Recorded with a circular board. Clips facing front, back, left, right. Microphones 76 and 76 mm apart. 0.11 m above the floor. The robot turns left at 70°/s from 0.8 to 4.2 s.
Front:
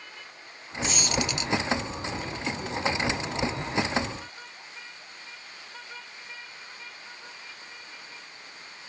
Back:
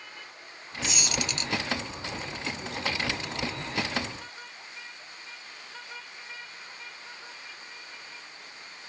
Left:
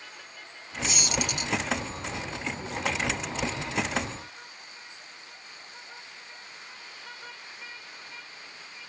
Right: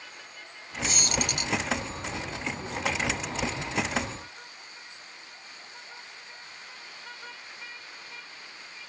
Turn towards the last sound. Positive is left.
turn(degrees=85)